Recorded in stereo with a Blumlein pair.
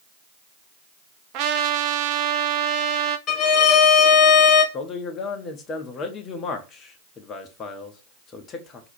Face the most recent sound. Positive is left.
turn(degrees=25)